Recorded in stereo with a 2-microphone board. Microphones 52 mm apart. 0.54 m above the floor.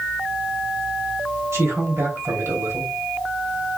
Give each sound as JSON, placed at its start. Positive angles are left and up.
{"t": 1.5, "sound": "a man speaking", "side_deg": -70, "distance_m": 3.0}